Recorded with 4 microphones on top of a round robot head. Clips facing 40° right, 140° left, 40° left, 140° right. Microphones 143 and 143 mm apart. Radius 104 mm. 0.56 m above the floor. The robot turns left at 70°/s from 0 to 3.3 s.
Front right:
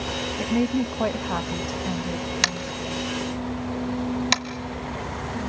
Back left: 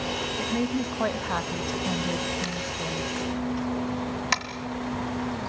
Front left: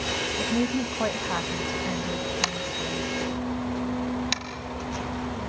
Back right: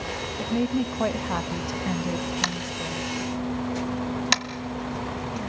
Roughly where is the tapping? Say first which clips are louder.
Front right 2 dB, even; ahead right.